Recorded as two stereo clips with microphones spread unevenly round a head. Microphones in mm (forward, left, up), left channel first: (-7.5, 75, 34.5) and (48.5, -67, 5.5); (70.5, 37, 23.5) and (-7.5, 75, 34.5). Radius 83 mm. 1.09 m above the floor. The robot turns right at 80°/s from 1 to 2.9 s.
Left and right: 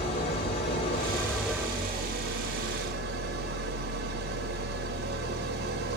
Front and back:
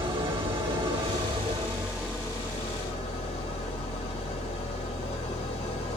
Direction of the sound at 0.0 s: 160° left.